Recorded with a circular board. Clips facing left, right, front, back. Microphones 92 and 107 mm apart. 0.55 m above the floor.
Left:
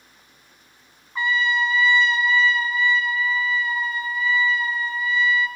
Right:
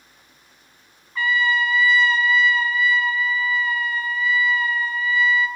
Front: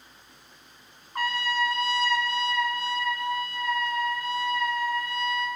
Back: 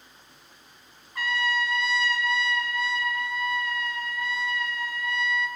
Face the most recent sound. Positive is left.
turn(degrees=25)